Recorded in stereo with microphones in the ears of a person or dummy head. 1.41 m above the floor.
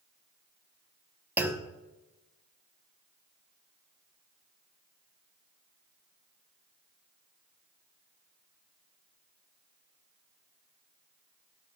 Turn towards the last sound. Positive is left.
turn(degrees=-15)  # may be behind; listen again after turning